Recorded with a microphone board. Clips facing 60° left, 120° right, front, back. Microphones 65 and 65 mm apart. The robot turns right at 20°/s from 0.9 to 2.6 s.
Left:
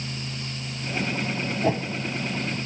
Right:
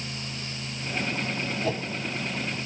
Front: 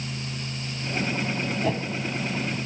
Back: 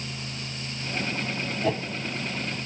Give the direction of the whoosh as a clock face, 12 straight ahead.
9 o'clock.